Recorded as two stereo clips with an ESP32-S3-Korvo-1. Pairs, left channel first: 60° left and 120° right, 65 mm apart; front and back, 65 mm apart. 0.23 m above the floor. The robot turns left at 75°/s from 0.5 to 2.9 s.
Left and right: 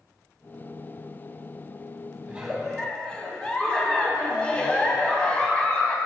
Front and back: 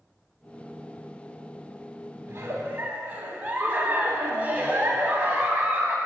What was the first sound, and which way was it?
A giggle, 175° left.